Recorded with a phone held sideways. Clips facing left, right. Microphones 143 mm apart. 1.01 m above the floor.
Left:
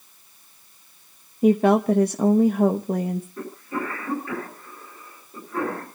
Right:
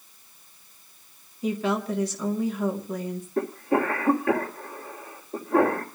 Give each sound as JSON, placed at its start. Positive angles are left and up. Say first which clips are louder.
{"t": 1.4, "sound": "a woman speaking", "louder": "left 9 dB", "side_deg": 55, "distance_m": 0.9}
{"t": 3.4, "sound": "a cough", "louder": "right 7 dB", "side_deg": -85, "distance_m": 3.0}